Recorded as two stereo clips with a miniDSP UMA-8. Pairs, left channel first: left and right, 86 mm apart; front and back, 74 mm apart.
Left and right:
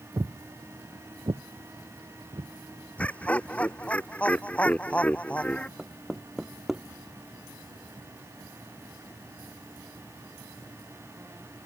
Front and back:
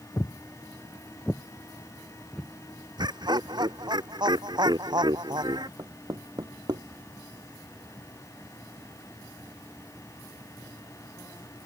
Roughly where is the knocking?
Behind.